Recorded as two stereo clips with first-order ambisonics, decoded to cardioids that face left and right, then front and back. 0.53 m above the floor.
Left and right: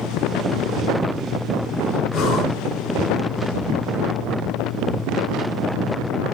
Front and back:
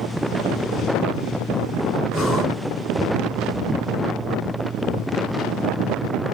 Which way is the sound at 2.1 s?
70° left.